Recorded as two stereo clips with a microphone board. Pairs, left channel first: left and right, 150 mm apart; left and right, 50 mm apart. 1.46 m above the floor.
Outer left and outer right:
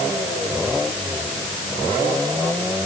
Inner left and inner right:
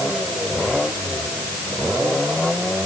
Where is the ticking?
No ticking in this recording.